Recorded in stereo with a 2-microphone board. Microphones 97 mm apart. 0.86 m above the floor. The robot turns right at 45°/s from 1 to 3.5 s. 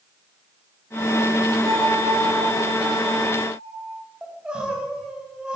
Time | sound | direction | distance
1.6 | a bell | 155° right | 5 m
4.2 | crying | 10° right (ahead or behind) | 4 m